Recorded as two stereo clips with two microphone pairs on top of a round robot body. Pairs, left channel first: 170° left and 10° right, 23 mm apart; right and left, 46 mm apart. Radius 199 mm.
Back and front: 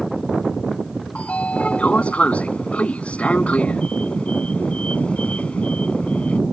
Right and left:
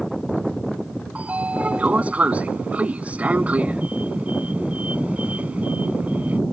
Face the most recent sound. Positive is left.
turn(degrees=150)